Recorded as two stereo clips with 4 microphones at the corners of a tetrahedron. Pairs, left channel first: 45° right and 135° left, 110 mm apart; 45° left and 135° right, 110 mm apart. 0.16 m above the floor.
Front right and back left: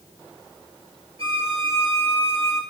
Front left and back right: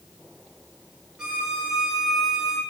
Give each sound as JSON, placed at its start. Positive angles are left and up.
{"t": 1.2, "sound": "a violin", "azimuth_deg": 145, "distance_m": 2.0}